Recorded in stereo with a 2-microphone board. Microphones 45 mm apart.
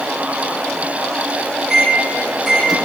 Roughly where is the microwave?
Centre.